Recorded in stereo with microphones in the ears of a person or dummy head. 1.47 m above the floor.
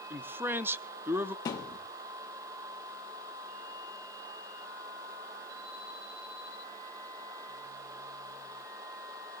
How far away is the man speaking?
About 0.7 m.